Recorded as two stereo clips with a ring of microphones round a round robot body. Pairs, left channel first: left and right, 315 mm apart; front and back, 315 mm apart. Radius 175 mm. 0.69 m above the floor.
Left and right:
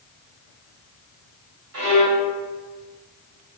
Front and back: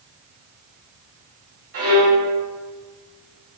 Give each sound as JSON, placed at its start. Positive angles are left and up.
{"t": 1.7, "sound": "a violin", "azimuth_deg": -135, "distance_m": 1.4}